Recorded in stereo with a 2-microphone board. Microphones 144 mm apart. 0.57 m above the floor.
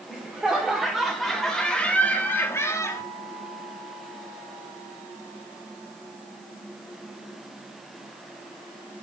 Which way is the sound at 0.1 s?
5° right (ahead or behind).